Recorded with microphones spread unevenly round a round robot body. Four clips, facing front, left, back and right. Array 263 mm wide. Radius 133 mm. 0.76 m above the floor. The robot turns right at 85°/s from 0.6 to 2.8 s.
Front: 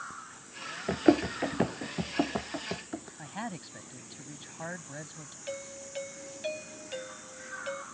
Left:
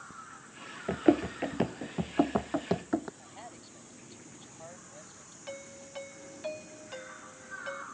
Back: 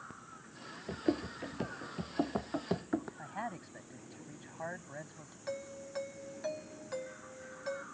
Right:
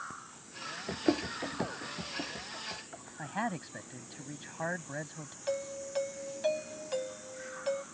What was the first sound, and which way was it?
Running footsteps, 35° left.